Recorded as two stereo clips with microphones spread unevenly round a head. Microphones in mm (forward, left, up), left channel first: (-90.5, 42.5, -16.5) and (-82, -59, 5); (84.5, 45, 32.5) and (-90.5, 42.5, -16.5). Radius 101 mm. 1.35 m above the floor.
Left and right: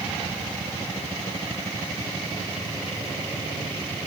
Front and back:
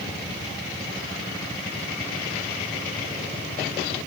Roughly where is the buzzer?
I don't hear a buzzer.